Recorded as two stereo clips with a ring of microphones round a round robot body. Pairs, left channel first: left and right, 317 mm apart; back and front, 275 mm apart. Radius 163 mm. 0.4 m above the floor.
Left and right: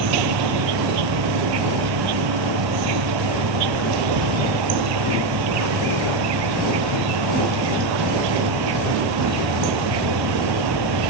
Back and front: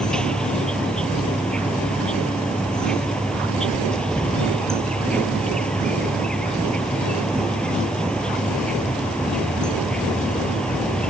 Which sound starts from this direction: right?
An insect, at 0.0 s.